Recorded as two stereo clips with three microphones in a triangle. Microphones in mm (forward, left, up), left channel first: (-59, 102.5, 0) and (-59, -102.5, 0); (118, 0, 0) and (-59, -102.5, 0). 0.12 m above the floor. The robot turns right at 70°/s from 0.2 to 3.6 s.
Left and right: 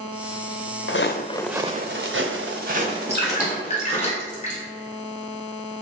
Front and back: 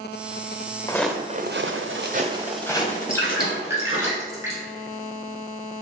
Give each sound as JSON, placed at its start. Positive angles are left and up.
{"t": 0.9, "sound": "footsteps", "azimuth_deg": 100, "distance_m": 0.6}
{"t": 3.1, "sound": "dripping", "azimuth_deg": 100, "distance_m": 1.4}